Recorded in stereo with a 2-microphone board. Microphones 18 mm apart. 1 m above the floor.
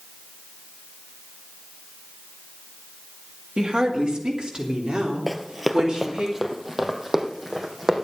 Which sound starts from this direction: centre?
Running footsteps, at 5.3 s.